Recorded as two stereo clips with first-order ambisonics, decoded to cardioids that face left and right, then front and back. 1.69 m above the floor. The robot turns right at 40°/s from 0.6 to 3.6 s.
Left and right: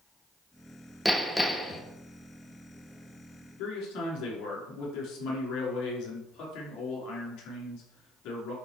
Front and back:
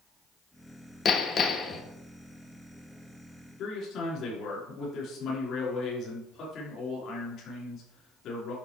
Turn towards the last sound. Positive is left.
turn(degrees=55)